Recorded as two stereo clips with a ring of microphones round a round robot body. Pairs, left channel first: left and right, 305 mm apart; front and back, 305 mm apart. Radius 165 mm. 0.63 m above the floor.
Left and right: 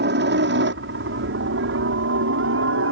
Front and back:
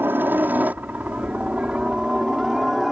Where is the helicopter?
100° right; by 2.9 s 90° right.